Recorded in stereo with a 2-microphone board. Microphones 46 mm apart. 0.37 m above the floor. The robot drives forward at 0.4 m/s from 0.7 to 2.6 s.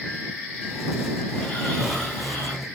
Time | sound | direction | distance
1.3 | snoring | 25° left (ahead or behind) | 1.5 m